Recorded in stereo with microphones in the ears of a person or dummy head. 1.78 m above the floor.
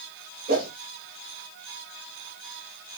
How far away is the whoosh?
About 0.7 m.